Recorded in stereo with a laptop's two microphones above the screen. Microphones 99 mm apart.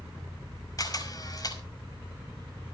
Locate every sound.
0.8 s a camera shutter: 40° left (ahead or behind), 5 m